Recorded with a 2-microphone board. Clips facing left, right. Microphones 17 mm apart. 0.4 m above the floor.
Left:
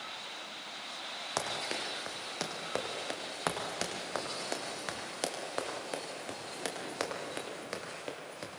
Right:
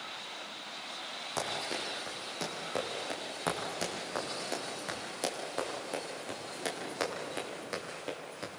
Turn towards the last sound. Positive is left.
turn(degrees=10)  # may be behind; listen again after turning